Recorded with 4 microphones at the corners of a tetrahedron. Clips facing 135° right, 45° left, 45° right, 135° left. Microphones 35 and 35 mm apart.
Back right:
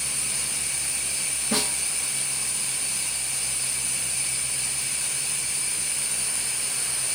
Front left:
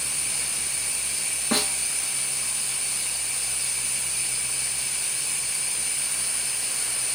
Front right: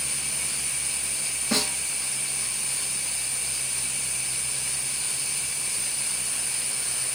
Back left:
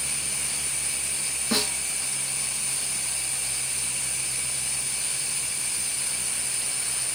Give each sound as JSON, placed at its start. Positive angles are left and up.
{"t": 1.5, "sound": "a snare drum", "azimuth_deg": 50, "distance_m": 2.0}